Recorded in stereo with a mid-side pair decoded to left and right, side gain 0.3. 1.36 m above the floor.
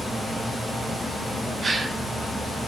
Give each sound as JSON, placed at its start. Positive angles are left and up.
{"t": 1.6, "sound": "a gasp", "azimuth_deg": -55, "distance_m": 5.5}